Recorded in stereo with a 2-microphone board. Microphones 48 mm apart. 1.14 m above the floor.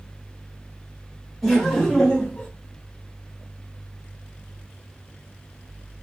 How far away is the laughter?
About 1.7 m.